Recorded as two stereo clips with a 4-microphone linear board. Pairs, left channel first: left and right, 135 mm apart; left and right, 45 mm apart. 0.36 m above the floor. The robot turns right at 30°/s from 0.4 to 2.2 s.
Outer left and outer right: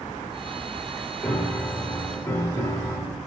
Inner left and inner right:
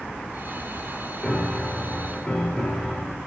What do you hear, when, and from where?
1.2 s a piano: 10° left (ahead or behind), 0.9 m; by 3.2 s 15° left (ahead or behind), 0.9 m